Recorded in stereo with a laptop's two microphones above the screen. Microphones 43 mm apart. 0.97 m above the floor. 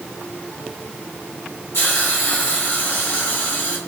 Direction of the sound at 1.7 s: 75° left (ahead or behind).